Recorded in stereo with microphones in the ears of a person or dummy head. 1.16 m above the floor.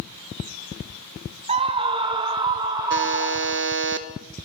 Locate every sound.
1.5 s a scream: 30° right (ahead or behind), 0.8 m; by 3.7 s 20° right (ahead or behind), 3.5 m
2.9 s a buzzer: 60° right (ahead or behind), 1.1 m